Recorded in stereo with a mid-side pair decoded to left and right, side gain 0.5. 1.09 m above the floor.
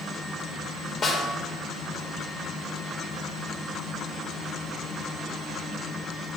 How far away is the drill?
No drill in this recording.